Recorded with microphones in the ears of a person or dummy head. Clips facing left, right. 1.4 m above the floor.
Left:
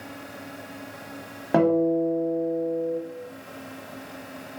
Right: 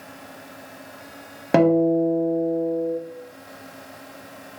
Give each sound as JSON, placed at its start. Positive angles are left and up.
{"t": 1.5, "sound": "a guitar", "side_deg": -40, "distance_m": 0.6}